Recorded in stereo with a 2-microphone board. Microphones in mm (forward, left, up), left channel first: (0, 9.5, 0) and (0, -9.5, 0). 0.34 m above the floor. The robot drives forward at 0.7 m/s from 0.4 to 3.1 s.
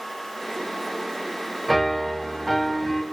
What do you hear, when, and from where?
1.7 s a piano: 15° left (ahead or behind), 0.8 m; by 3.0 s 5° left (ahead or behind), 1.5 m